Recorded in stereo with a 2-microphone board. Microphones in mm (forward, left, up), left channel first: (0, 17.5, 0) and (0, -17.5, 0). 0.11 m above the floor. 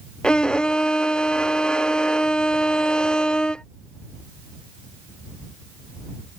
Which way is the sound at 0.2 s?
25° left (ahead or behind).